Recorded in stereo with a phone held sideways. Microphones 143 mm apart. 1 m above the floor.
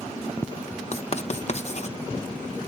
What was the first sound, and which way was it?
Writing, 50° left (ahead or behind).